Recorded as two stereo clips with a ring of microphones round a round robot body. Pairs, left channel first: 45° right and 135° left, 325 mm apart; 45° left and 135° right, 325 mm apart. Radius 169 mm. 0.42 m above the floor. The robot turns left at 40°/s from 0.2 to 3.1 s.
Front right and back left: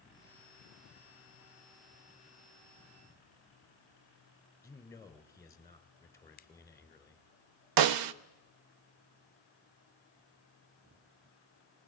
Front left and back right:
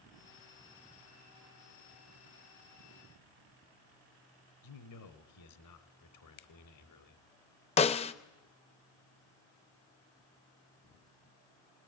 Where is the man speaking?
35° left, 2.5 m.